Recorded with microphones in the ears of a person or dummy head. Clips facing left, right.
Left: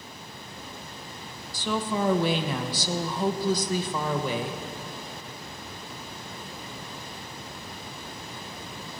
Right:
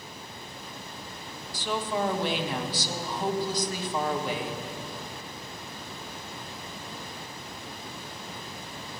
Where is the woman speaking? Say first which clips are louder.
Left 2 dB; 75° left (ahead or behind), 1.3 m.